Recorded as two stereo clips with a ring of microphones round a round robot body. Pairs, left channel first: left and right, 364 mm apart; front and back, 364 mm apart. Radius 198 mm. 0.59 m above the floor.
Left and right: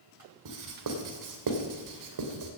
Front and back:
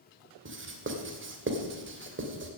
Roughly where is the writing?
Behind right.